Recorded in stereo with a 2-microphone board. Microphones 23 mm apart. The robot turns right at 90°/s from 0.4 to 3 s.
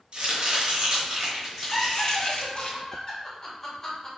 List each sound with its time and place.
0.1 s chopping: 120° right, 1.3 m; by 2.7 s 85° left, 1.3 m
1.7 s laughter: 5° left (ahead or behind), 1.8 m; by 4.1 s 30° left (ahead or behind), 1.8 m